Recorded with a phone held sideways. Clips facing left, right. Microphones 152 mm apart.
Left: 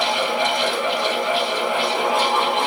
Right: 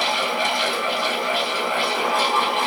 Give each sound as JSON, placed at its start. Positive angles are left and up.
{"t": 0.0, "sound": "a fan", "side_deg": 20, "distance_m": 2.0}